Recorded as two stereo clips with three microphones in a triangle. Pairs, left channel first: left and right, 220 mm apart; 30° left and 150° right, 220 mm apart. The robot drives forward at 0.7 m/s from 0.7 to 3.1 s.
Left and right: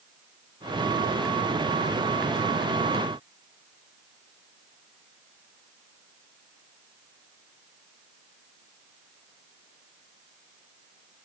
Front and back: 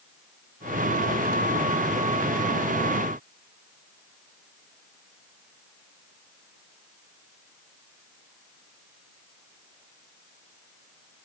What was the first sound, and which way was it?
Only background noise.